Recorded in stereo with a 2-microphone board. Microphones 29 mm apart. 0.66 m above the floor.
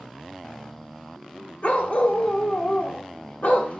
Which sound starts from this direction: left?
A dog barking, at 1.6 s.